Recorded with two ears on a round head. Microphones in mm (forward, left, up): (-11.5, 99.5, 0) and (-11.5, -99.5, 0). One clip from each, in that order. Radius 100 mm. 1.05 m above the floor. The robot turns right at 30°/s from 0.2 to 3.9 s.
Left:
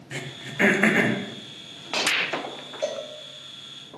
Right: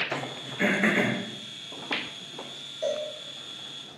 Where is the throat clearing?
40° left (ahead or behind), 0.6 m; by 1.2 s 10° left (ahead or behind), 0.6 m.